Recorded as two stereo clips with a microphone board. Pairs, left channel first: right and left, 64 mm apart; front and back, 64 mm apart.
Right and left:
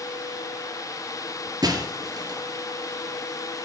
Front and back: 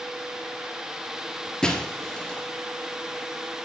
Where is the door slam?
No door slam in this recording.